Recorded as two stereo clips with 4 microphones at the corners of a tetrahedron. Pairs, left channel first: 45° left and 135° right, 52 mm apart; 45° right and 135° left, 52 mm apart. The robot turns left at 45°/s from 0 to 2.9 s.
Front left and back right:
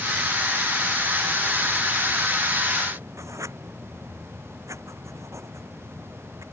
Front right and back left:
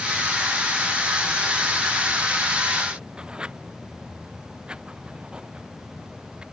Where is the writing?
155° right.